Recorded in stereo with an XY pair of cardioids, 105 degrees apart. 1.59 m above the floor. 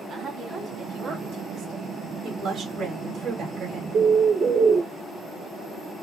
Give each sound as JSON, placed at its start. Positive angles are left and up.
{"t": 0.1, "sound": "a woman speaking", "azimuth_deg": -50, "distance_m": 2.5}
{"t": 2.2, "sound": "a woman speaking", "azimuth_deg": -70, "distance_m": 2.5}
{"t": 3.9, "sound": "a bird", "azimuth_deg": -50, "distance_m": 0.6}